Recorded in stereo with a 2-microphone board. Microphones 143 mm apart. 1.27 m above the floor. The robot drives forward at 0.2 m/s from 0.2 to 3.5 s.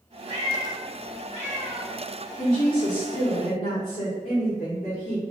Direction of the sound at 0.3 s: 55° left (ahead or behind).